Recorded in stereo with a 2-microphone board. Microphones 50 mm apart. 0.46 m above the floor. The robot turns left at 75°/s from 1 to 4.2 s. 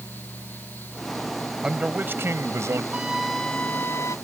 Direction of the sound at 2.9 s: 155° right.